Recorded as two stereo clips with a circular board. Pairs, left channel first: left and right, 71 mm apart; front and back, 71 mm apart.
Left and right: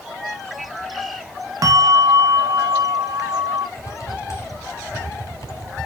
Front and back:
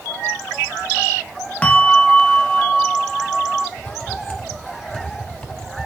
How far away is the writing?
About 3 m.